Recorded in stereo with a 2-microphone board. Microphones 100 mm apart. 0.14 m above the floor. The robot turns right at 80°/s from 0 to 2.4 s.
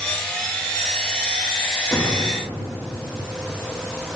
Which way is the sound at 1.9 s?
145° left.